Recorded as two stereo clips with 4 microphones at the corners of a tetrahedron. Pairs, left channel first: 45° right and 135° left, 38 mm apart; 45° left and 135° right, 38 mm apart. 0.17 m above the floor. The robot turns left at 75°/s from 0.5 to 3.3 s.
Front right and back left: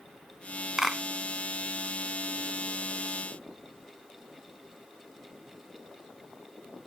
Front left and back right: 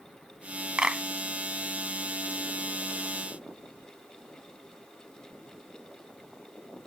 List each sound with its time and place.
0.8 s a clap: 155° right; by 1.0 s 170° right